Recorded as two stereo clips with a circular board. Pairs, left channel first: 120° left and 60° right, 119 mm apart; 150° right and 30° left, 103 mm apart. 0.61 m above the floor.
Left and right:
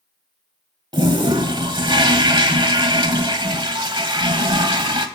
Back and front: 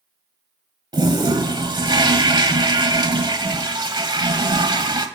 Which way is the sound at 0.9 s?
15° right.